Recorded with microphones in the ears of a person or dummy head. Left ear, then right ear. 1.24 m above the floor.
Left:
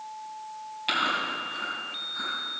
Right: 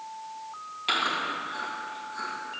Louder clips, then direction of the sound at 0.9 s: Even; 10° left (ahead or behind).